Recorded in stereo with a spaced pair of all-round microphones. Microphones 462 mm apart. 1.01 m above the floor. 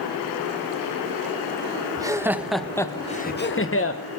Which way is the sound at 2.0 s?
10° right (ahead or behind).